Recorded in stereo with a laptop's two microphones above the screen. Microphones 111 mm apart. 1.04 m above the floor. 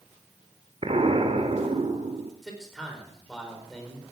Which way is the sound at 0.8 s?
60° right (ahead or behind).